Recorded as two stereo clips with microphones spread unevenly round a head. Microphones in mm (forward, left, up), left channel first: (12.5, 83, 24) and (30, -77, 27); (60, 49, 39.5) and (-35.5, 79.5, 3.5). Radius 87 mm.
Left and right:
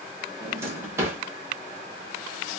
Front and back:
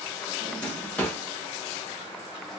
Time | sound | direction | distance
0.4 | a drawer | 30° right | 1.1 m